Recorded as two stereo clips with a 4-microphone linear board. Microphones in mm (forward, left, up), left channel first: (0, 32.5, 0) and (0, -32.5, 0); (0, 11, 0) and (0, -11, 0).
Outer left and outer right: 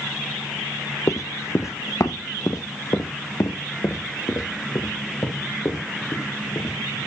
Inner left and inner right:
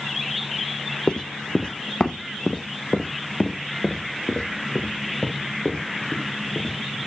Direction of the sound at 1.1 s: 55° left (ahead or behind).